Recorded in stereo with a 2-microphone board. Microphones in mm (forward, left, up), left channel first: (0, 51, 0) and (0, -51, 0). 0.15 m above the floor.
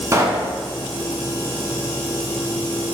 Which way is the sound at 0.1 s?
30° right (ahead or behind).